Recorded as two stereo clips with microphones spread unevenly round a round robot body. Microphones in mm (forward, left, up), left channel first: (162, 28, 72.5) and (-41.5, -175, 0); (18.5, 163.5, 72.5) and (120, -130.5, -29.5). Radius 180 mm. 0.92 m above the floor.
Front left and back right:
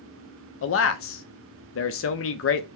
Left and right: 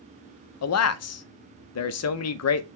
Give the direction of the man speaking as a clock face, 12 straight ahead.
10 o'clock.